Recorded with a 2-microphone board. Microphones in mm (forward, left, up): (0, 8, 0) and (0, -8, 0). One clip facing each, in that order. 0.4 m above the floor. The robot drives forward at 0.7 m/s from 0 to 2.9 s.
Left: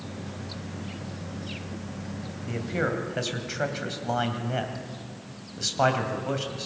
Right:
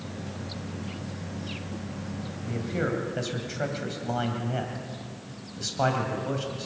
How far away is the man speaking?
About 1.9 m.